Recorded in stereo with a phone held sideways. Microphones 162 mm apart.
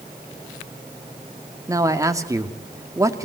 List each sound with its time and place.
1.7 s a man speaking: 20° right (ahead or behind), 2 m